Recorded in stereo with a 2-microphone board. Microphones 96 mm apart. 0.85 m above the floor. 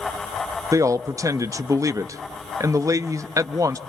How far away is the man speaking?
About 0.8 m.